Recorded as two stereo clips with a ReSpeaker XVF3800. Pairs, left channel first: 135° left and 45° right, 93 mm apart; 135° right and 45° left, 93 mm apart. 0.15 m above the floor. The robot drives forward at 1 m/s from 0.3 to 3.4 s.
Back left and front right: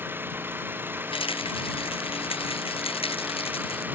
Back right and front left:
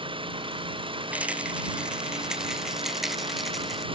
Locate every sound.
0.0 s an engine running: 25° left
1.1 s a rattle: 120° left; by 3.9 s 135° left